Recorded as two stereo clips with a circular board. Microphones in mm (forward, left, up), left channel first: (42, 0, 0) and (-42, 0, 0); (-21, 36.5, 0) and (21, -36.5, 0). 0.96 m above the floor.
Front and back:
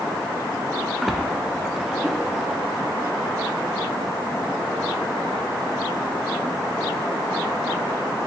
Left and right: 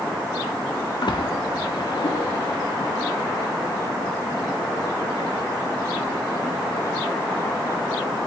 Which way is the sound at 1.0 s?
90° left.